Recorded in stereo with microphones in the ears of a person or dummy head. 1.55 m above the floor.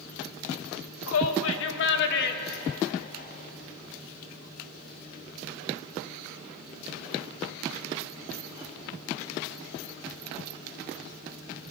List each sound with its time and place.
1.1 s a shout: 85° left, 2.0 m; by 3.5 s 40° left (ahead or behind), 3 m